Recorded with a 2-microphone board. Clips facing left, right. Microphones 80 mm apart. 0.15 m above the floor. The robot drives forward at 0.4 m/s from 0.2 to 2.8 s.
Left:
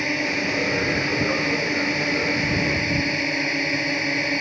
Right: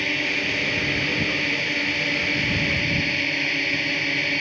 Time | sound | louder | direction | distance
0.0 | a drone | left 2 dB | 20° left (ahead or behind) | ?